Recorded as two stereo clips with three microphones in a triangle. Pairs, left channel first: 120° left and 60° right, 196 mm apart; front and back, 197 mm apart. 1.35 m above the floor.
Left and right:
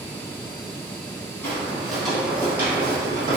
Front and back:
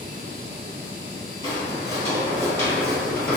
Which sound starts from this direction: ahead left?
Footsteps, at 1.4 s.